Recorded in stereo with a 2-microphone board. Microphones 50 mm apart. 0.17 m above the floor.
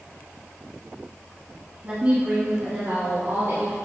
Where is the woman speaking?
20° right (ahead or behind), 1.0 m; by 3.7 s 60° right (ahead or behind), 1.8 m.